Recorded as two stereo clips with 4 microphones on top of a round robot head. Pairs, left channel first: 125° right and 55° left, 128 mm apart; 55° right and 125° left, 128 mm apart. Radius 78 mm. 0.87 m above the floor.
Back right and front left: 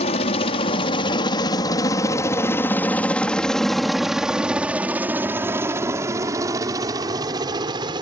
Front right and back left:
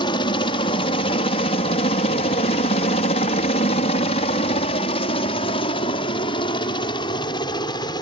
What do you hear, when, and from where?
0.0 s a helicopter: 100° right; by 8.0 s straight ahead